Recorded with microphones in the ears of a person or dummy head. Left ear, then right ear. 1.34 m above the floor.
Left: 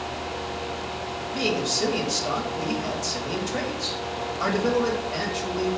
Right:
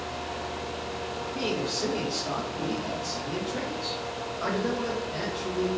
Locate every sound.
1.3 s a man speaking: 70° left (ahead or behind), 1.2 m